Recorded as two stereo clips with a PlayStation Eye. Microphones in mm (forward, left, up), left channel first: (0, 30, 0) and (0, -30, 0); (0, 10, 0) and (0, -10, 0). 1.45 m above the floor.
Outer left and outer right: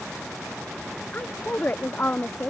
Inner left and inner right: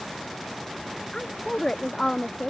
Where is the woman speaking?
30° left (ahead or behind).